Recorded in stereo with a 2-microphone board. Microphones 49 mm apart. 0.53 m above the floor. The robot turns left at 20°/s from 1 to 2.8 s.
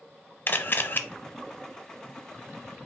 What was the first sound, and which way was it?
A camera shutter, 40° left (ahead or behind).